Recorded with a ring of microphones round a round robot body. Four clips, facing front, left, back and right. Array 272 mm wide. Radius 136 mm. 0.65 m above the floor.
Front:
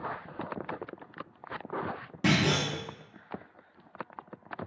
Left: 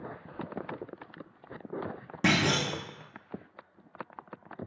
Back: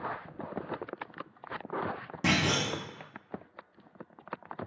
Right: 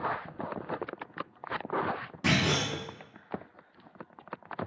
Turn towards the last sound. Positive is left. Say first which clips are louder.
# left 1 dB, front 2 dB
turn(degrees=85)